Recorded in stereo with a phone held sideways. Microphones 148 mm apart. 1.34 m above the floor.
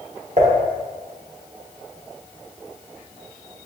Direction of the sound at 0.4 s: 55° right (ahead or behind).